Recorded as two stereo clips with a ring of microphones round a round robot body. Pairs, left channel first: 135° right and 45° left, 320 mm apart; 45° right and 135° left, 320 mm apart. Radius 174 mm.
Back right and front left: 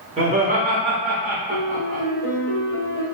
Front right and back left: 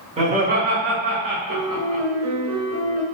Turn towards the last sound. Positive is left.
turn(degrees=110)